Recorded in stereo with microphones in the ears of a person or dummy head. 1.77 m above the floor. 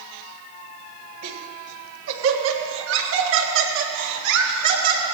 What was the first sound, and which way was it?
Laughter, 65° right (ahead or behind).